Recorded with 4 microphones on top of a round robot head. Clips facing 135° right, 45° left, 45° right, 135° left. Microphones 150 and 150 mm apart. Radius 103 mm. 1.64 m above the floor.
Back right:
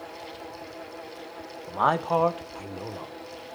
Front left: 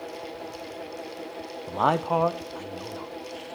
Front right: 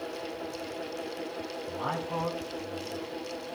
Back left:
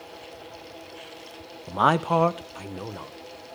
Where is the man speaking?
110° left, 0.7 m; by 3.1 s 160° left, 1.3 m.